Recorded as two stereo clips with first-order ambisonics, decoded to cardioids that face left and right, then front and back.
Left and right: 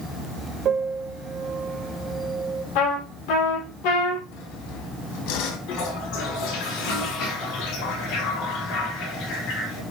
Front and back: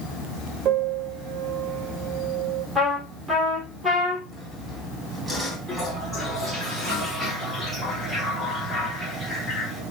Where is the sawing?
100° left, 2 m.